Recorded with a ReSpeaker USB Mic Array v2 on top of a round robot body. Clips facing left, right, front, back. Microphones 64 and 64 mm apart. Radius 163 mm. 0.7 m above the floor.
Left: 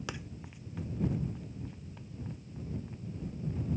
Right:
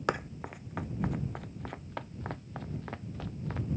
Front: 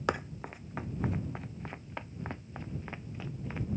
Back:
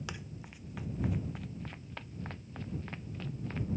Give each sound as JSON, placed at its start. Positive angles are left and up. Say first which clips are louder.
{"t": 0.1, "sound": "running footsteps", "louder": "right 10 dB, front 11 dB", "azimuth_deg": -45}